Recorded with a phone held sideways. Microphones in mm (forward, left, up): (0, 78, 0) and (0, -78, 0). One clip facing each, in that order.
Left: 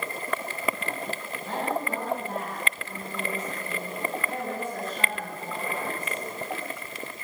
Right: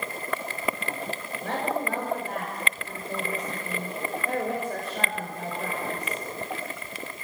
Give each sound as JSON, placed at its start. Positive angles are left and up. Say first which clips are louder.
{"t": 1.4, "sound": "a woman speaking", "louder": "right 1 dB", "side_deg": -85, "distance_m": 5.5}